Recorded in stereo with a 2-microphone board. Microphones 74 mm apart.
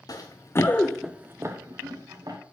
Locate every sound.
0.1 s running footsteps: 60° left (ahead or behind), 1.1 m; by 2.4 s 65° right (ahead or behind), 1.7 m